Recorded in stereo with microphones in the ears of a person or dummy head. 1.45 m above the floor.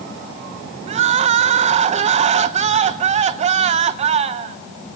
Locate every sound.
0.9 s crying: 40° right (ahead or behind), 0.7 m